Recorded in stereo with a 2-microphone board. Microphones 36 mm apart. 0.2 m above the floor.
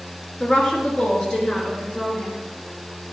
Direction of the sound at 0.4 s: 30° left (ahead or behind).